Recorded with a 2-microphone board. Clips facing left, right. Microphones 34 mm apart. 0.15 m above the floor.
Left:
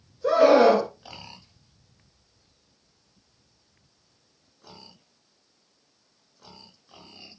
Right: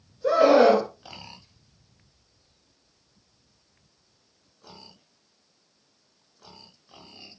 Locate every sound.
0.2 s a scream: 15° left (ahead or behind), 1.7 m